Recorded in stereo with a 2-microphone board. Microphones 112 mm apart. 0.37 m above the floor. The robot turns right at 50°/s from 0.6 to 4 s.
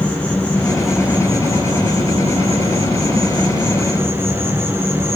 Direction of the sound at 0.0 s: 170° left.